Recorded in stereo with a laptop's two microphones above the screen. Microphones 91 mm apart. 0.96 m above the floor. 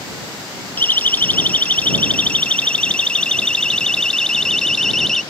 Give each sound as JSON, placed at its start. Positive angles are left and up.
{"t": 0.8, "sound": "a siren", "side_deg": 20}